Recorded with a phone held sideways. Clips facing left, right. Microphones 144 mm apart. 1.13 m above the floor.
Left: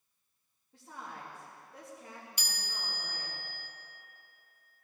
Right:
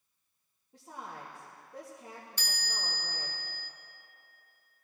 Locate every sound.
0.7 s a woman speaking: 20° right (ahead or behind), 1.9 m
2.4 s a chime: 15° left (ahead or behind), 1.0 m